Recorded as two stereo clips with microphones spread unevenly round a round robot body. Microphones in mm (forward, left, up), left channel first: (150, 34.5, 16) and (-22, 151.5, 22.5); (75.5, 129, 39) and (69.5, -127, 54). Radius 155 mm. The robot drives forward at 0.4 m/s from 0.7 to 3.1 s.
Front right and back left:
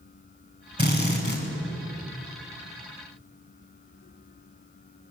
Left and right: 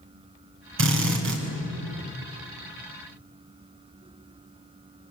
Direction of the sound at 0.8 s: 140° right.